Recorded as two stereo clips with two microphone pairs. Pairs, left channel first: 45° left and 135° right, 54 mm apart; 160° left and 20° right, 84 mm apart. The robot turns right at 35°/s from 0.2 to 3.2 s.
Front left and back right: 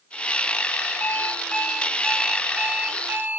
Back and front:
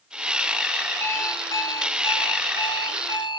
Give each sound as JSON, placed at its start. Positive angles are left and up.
{"t": 1.0, "sound": "an alarm clock", "azimuth_deg": 95, "distance_m": 1.3}